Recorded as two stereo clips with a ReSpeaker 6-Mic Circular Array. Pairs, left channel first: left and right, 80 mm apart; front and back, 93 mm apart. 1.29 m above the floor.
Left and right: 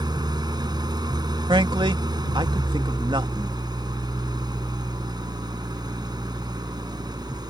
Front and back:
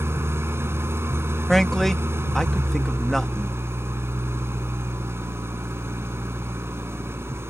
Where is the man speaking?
85° right.